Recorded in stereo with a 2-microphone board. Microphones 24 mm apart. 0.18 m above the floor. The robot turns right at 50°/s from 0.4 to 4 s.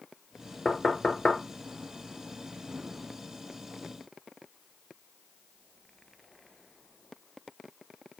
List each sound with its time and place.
0.7 s knocking: 30° left (ahead or behind), 1.8 m; by 1.4 s 60° left (ahead or behind), 1.8 m